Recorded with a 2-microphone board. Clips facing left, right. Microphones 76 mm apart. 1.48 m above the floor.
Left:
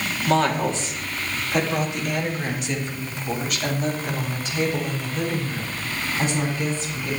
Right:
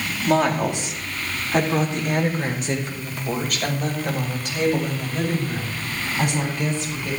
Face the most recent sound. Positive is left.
turn(degrees=-55)  # may be behind; listen again after turning